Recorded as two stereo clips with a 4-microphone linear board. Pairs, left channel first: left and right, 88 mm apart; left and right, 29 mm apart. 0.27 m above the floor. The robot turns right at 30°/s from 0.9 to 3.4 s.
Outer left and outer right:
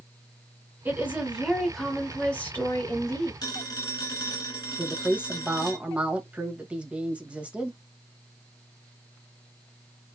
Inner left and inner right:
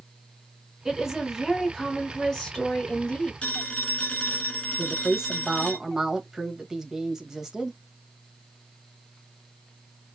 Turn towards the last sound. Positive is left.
turn(degrees=-15)  # may be behind; listen again after turning